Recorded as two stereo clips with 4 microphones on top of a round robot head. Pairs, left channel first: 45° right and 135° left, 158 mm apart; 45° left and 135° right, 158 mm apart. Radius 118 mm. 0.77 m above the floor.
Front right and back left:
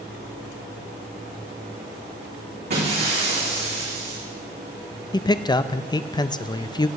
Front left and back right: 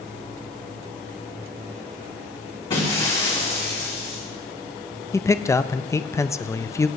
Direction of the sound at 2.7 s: 110° left.